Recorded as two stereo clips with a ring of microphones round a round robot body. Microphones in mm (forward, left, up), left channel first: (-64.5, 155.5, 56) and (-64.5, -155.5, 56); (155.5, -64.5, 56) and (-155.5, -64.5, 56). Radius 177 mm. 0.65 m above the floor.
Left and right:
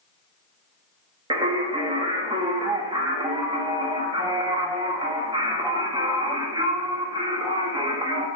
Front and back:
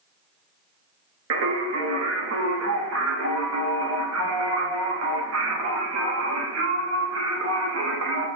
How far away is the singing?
About 0.8 m.